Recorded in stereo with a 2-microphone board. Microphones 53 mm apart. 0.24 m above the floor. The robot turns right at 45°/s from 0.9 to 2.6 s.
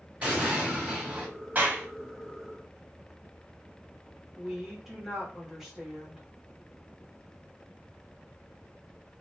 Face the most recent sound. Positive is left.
turn(degrees=-10)  # may be behind; listen again after turning